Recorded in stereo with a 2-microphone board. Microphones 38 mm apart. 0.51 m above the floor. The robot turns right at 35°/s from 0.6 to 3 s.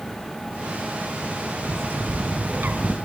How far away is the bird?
About 1.1 m.